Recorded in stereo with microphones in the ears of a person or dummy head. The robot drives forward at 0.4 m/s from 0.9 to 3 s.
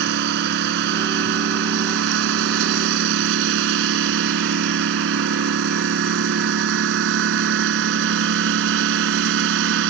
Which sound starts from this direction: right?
A lawn mower, at 0.0 s.